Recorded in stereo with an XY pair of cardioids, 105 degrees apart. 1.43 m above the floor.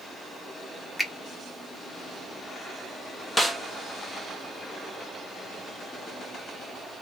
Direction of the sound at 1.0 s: 10° left.